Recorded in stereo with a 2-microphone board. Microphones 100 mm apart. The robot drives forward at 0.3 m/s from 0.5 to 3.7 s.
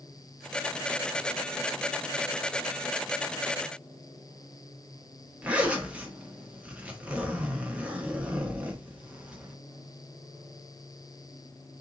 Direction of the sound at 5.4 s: 10° right (ahead or behind).